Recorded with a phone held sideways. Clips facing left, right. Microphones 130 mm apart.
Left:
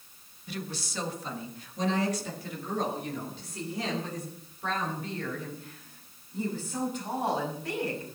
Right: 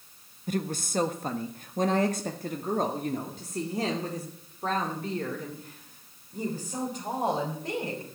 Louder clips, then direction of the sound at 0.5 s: Right 8 dB; 45° right (ahead or behind).